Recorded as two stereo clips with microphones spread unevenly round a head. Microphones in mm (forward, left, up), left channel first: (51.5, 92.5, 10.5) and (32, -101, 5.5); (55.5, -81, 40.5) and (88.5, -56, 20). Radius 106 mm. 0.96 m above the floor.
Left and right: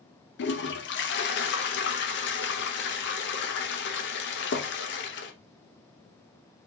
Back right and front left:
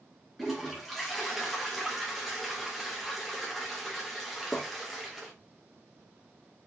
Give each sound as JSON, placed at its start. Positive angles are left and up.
{"t": 0.4, "sound": "a toilet flushing", "azimuth_deg": 110, "distance_m": 0.6}